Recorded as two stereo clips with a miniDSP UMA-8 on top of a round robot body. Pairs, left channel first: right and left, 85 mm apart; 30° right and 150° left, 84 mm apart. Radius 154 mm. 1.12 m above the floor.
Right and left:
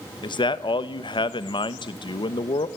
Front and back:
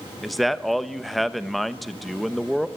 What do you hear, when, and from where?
0.2 s a man speaking: 120° right, 1.2 m